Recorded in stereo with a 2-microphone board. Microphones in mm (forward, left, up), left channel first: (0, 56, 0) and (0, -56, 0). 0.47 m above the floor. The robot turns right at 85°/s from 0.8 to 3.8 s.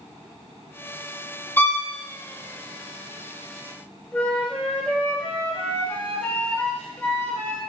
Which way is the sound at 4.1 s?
15° left (ahead or behind).